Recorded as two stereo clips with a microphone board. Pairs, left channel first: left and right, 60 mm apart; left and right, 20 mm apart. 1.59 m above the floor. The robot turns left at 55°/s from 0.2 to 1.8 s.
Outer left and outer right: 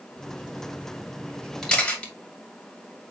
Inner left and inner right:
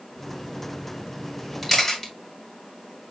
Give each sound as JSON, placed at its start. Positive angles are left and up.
{"t": 1.6, "sound": "a camera shutter", "side_deg": 10, "distance_m": 2.5}